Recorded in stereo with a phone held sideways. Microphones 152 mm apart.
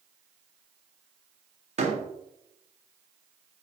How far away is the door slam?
About 2.5 m.